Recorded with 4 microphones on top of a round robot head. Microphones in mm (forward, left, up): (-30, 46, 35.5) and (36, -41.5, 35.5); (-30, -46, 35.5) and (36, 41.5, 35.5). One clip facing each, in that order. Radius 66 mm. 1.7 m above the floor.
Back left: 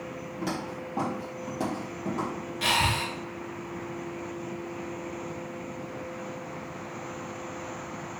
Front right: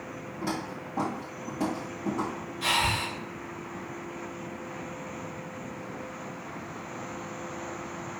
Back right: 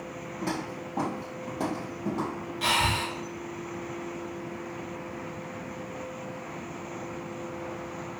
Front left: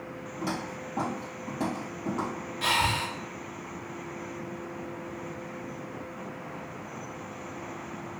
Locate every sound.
0.4 s footsteps: 95° left, 1.8 m; by 2.3 s straight behind, 2 m
2.6 s breathing: 150° left, 0.8 m